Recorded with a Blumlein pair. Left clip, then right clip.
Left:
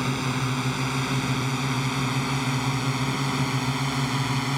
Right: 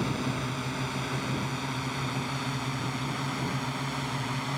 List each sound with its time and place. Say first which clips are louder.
0.0 s a drone: left 4 dB; 70° left; by 4.6 s 65° left